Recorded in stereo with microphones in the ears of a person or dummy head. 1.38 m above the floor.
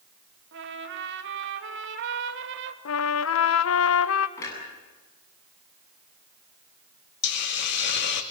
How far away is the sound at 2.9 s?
About 0.9 m.